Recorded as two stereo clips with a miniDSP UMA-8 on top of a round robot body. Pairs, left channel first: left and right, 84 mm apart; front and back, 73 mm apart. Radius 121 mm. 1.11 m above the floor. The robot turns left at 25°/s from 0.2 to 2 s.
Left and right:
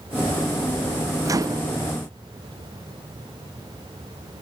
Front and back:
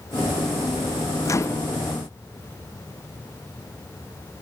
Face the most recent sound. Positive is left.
turn(degrees=-60)